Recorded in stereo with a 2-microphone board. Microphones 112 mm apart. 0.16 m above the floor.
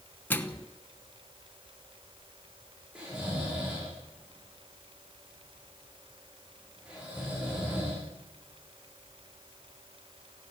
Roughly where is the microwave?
Centre.